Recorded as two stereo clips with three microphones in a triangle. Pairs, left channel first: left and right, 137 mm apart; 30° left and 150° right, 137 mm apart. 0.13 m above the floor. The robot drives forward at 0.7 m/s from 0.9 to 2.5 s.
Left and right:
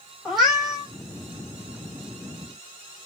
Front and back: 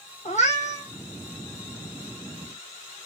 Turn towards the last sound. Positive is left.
turn(degrees=0)